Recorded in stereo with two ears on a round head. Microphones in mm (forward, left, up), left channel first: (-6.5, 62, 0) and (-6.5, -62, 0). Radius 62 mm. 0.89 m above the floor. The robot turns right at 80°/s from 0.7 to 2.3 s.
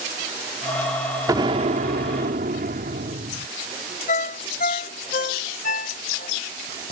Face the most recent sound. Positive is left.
turn(degrees=65)  # may be behind; listen again after turning